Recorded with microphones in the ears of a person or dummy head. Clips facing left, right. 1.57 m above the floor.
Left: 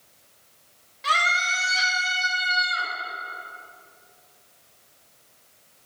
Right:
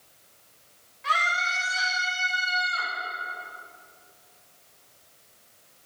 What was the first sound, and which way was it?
A scream, 65° left (ahead or behind).